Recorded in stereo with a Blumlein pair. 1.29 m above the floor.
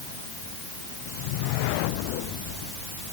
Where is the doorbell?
No doorbell in this recording.